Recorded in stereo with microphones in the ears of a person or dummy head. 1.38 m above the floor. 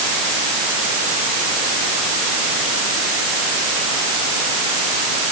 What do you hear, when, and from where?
Only background noise.